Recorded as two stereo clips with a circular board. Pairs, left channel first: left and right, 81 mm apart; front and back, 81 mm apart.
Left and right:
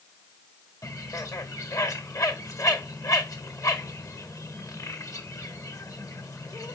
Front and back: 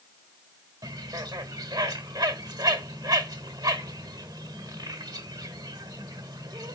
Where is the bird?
140° left, 1.4 m.